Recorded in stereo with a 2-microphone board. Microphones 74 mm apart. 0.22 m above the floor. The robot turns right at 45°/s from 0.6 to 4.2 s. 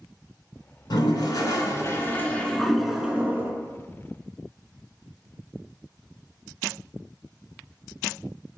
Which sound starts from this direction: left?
A toilet flushing, at 0.9 s.